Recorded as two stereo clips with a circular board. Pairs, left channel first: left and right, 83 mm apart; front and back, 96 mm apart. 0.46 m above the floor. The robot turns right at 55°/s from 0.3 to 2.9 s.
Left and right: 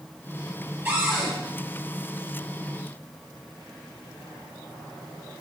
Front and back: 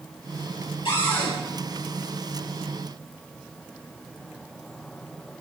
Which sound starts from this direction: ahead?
A cupboard door, at 0.8 s.